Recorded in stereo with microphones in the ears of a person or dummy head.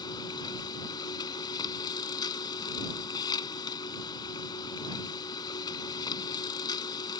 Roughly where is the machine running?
Left.